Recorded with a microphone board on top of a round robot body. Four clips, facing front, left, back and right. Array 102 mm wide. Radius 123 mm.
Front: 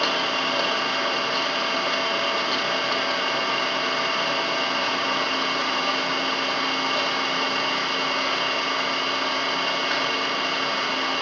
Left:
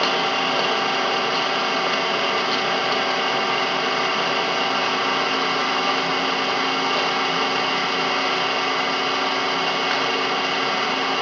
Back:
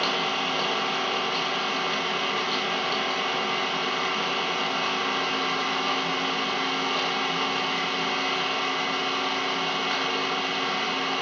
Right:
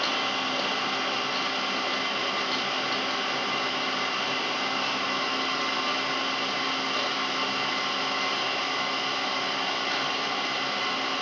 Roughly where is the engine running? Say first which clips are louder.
Left 8 dB, front 2 dB; left.